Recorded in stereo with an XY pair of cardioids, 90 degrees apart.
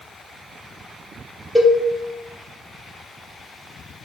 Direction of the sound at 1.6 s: 5° left.